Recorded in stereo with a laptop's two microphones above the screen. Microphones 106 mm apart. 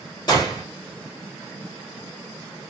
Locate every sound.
0.3 s a gunshot: 40° left (ahead or behind), 1.1 m